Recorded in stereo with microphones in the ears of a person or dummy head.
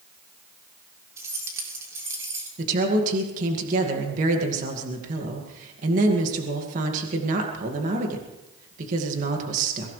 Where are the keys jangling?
20° right (ahead or behind), 2.5 m.